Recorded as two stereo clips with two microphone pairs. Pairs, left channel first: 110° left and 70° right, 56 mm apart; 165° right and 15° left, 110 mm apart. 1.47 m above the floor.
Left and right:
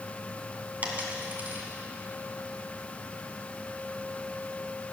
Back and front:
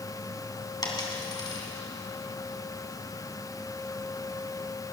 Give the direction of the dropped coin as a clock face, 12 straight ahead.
4 o'clock.